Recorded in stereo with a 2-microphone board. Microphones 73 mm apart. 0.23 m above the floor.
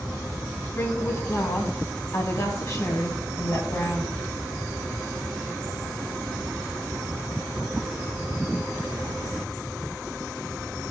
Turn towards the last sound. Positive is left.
turn(degrees=35)  # may be behind; listen again after turning